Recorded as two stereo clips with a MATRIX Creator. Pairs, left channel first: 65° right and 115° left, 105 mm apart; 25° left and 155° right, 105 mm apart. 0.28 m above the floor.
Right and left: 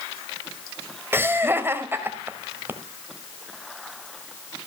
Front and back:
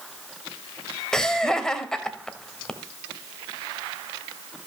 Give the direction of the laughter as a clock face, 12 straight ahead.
9 o'clock.